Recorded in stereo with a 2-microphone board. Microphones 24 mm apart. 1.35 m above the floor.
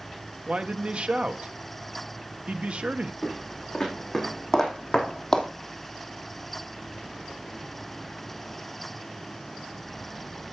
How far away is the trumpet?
No trumpet in this recording.